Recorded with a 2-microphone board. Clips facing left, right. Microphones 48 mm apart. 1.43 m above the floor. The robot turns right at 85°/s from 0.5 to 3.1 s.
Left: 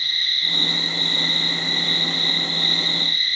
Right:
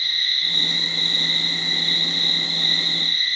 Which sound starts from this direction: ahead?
An insect, at 0.0 s.